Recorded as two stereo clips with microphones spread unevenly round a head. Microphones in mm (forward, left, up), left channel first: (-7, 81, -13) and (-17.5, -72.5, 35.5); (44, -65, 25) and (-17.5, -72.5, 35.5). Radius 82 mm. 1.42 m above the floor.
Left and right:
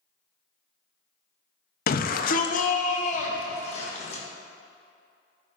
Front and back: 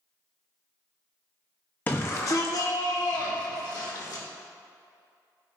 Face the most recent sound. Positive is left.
turn(degrees=35)